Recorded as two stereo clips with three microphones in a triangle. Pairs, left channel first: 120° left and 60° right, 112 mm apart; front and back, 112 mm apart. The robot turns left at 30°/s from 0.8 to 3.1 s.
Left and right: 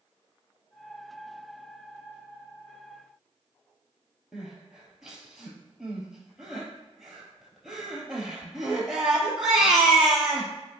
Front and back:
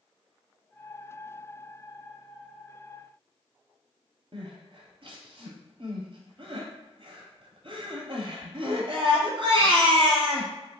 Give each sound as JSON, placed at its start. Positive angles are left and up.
{"t": 4.3, "sound": "crying", "azimuth_deg": -145, "distance_m": 1.0}